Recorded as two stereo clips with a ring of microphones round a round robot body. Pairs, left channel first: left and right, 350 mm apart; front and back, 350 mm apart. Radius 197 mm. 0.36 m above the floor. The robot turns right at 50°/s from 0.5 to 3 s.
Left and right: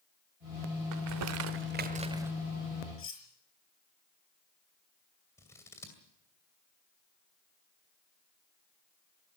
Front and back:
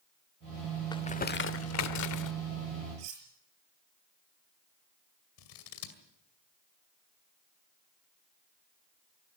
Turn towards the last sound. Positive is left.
turn(degrees=10)